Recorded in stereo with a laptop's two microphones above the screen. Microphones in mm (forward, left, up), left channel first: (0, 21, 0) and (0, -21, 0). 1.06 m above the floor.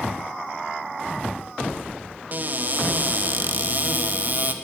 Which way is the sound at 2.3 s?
40° right (ahead or behind).